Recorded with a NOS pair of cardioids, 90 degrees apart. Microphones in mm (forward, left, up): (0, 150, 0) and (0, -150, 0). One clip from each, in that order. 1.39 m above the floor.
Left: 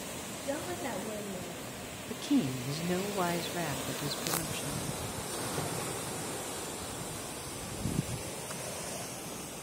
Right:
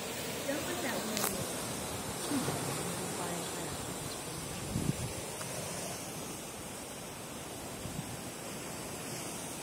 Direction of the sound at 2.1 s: 45° left.